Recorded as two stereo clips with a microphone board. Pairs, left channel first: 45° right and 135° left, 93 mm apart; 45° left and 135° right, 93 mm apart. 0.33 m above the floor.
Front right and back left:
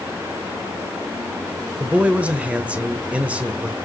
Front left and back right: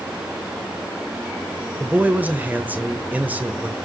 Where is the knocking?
I don't hear knocking.